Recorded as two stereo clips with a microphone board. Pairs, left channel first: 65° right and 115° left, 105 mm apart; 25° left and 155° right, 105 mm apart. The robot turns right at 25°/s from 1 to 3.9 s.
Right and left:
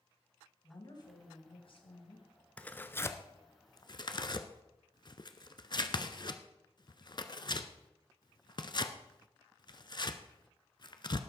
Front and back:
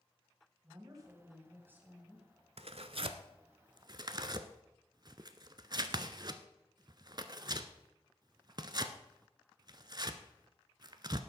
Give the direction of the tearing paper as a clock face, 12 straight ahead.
5 o'clock.